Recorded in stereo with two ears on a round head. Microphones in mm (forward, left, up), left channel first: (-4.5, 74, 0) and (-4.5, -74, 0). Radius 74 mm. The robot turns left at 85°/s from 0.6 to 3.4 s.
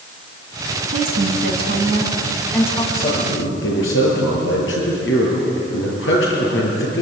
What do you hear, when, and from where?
0.9 s a woman speaking: 50° right, 3.5 m; by 2.8 s 150° left, 3.5 m
2.9 s a man speaking: 50° left (ahead or behind), 8 m; by 7.0 s 85° left, 8 m